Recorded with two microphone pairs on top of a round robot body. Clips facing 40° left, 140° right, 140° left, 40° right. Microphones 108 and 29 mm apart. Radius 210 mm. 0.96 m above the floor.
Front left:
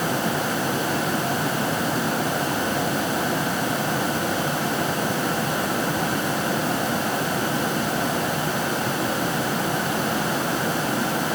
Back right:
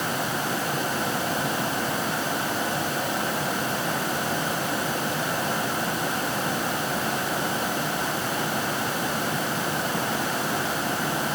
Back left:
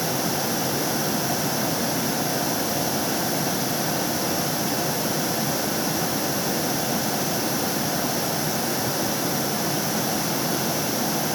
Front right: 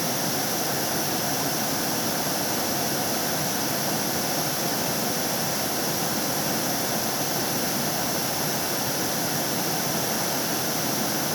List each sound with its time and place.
Only background noise.